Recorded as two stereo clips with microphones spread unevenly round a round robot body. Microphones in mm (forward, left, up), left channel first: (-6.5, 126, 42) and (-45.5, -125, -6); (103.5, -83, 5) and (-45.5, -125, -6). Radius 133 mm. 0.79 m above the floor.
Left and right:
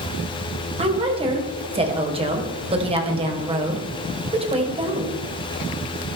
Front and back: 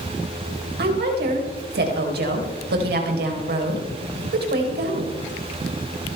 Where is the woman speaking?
165° right, 3.5 m.